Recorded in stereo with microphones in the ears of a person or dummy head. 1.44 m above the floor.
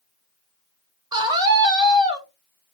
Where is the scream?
20° right (ahead or behind), 1.1 m.